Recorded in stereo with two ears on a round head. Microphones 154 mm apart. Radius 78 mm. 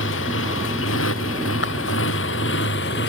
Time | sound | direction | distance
0.0 | a motorcycle | 90° left | ?
1.6 | breaking glass | 80° left | ?